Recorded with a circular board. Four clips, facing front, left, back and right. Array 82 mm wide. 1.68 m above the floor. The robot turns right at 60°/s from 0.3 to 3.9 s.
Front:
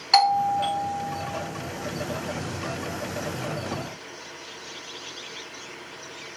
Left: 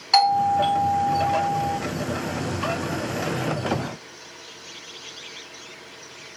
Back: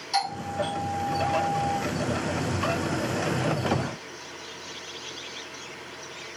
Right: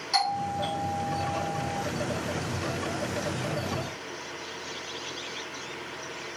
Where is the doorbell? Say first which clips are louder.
Left 10 dB, front 8 dB; 35° left, 1.1 m; by 1.8 s 125° left, 1.1 m.